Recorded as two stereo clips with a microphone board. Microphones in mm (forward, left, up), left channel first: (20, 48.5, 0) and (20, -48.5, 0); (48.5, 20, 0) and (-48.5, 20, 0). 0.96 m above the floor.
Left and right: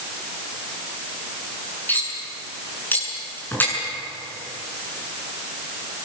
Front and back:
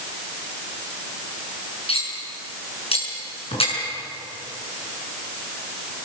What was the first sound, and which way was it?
Cutlery clinking, 20° left.